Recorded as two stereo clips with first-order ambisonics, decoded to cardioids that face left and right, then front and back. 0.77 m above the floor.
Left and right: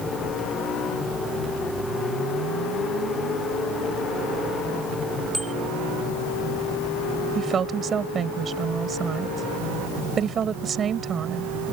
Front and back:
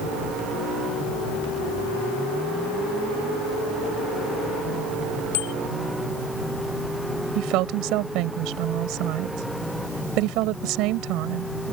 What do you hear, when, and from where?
5.3 s a bicycle bell: 5° right
7.3 s a woman speaking: 150° right